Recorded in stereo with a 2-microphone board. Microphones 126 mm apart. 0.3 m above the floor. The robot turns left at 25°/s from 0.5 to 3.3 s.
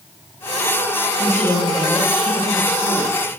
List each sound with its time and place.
1.2 s a woman speaking: 165° left, 9.5 m; by 3.2 s 120° left, 9.5 m